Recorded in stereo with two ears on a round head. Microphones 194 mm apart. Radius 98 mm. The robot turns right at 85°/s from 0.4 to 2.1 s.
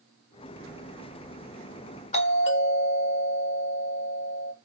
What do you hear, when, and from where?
2.1 s a doorbell: 30° left (ahead or behind), 1.5 m